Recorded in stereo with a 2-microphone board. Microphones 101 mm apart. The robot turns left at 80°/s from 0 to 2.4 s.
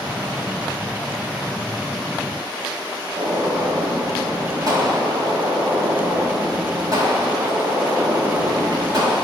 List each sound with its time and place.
3.1 s a gunshot: 40° right (ahead or behind), 2 m